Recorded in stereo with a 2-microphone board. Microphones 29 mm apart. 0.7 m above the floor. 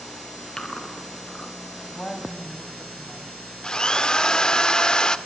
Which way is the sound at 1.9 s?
15° left (ahead or behind).